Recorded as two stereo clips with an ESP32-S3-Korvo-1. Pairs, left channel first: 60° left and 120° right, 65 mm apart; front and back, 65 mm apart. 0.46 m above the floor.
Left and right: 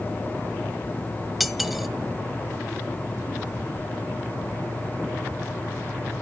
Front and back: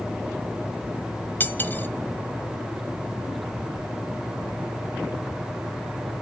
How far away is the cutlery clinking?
About 0.5 m.